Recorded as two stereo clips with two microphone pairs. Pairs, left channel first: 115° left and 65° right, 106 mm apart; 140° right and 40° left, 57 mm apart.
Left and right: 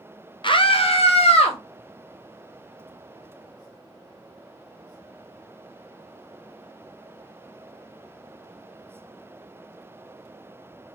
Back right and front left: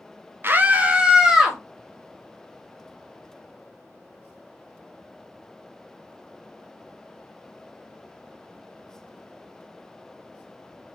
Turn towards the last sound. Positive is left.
turn(degrees=120)